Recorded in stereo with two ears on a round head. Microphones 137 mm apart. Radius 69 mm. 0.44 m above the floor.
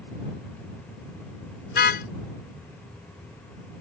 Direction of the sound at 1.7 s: 60° left (ahead or behind).